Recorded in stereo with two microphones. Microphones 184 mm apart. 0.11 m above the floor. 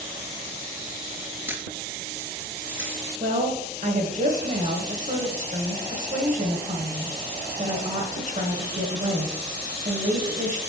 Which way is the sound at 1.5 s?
10° right (ahead or behind).